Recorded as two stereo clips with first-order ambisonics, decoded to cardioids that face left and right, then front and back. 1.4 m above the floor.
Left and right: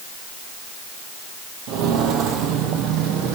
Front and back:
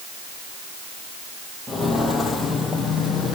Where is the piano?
No piano in this recording.